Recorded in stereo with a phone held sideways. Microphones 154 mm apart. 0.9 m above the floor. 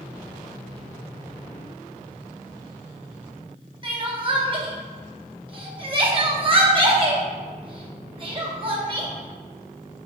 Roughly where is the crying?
Right.